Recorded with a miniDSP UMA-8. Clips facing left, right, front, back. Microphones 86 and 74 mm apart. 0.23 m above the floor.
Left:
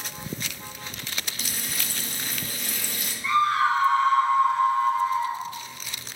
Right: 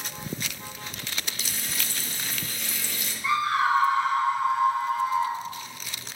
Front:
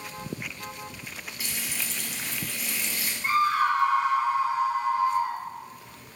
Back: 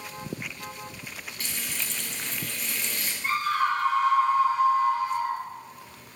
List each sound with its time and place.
1.4 s frying: 80° left, 0.7 m
3.2 s a scream: 35° right, 1.0 m